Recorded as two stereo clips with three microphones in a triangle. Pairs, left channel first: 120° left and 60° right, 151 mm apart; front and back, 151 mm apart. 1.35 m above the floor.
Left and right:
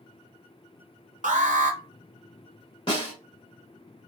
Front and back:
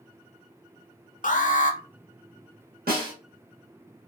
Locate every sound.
1.2 s an alarm: 25° right, 0.7 m
2.9 s a snare drum: 175° left, 1.6 m